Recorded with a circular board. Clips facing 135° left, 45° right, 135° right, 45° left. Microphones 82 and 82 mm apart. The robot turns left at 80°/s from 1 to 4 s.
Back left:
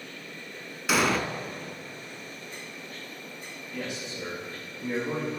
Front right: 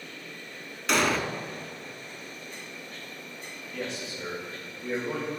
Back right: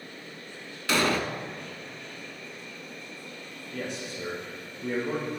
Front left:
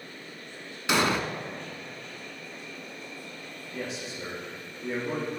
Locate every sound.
0.9 s an explosion: 60° left, 0.6 m; by 1.2 s 40° left, 0.6 m
3.7 s a man speaking: 135° right, 3.5 m; by 5.3 s 160° right, 3.5 m